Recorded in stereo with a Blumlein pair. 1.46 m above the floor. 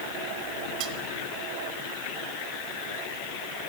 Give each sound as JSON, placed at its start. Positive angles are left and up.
{"t": 0.8, "sound": "cutlery clinking", "azimuth_deg": -40, "distance_m": 2.0}